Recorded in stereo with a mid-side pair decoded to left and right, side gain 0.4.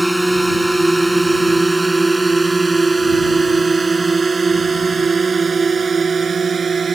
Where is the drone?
10° right; by 7.0 s 50° right.